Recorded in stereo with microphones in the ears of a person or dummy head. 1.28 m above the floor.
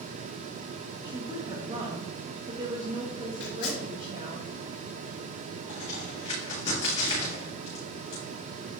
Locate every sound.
1.0 s a woman speaking: 20° right (ahead or behind), 1.3 m
3.4 s tearing paper: 70° left (ahead or behind), 3.5 m
5.7 s a crack: 40° left (ahead or behind), 3.5 m